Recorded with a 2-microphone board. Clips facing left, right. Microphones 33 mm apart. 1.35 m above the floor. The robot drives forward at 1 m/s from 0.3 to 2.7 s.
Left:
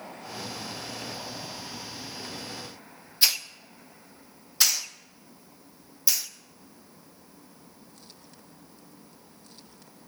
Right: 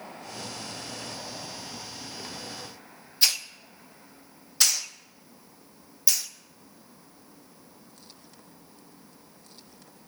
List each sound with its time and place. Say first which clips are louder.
3.2 s a hiss: even; centre (ahead or behind), 0.6 m